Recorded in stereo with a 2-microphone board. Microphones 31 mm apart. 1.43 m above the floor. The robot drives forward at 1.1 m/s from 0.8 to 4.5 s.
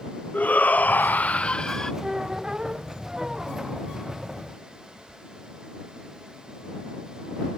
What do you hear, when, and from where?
0.3 s a shout: 60° left (ahead or behind); by 1.9 s 25° left (ahead or behind)
2.0 s a squeak: 15° right (ahead or behind); by 3.9 s 10° right (ahead or behind)